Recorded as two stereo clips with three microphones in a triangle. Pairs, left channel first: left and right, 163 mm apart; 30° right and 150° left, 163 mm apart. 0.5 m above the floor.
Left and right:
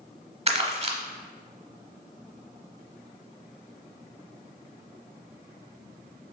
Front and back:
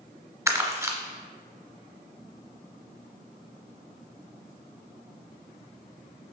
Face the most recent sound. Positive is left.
turn(degrees=-140)